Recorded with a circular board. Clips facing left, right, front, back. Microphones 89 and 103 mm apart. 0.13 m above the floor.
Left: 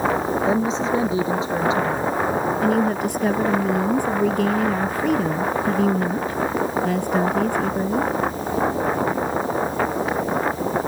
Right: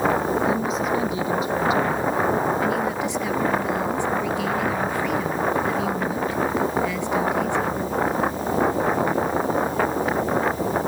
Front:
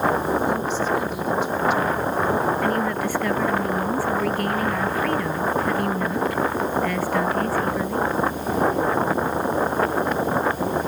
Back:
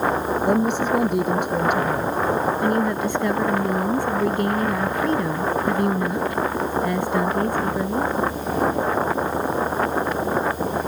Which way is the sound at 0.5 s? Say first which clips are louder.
Left 2 dB, back 3 dB; 150° left.